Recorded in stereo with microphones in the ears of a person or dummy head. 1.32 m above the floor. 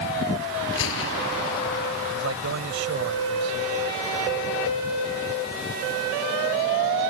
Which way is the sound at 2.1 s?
70° right (ahead or behind).